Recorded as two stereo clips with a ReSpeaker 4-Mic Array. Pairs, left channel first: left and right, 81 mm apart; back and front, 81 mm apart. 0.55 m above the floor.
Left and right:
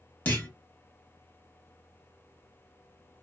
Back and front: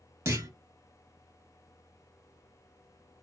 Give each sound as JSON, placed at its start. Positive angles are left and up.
{"t": 0.2, "sound": "a clunk", "azimuth_deg": 30, "distance_m": 0.9}